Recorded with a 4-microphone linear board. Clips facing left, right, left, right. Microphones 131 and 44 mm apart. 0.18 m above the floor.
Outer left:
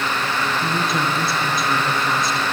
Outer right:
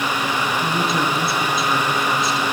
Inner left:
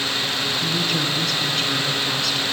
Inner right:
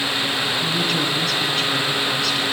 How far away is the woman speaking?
About 2 m.